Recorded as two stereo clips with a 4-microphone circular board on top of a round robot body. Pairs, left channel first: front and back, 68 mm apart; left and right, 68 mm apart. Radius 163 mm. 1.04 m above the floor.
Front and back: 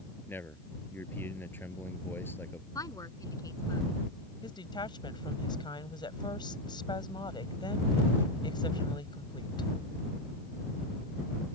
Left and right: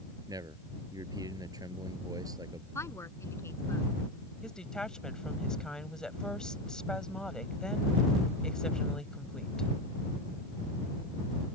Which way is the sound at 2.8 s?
40° left.